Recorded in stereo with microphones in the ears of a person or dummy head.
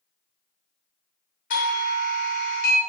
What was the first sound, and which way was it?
A doorbell, 40° left (ahead or behind).